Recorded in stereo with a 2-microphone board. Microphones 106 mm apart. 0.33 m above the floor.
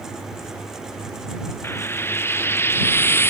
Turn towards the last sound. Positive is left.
turn(degrees=20)  # may be behind; listen again after turning